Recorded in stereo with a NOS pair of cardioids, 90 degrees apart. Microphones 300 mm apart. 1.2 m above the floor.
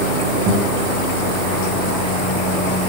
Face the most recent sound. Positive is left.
turn(degrees=-65)